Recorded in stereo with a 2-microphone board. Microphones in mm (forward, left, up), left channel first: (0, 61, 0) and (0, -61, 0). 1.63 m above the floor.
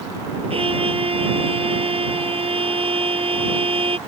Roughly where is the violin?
Right.